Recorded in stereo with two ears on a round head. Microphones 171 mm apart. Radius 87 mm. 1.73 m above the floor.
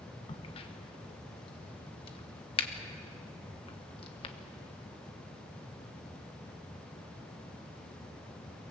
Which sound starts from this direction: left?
A crack, at 0.3 s.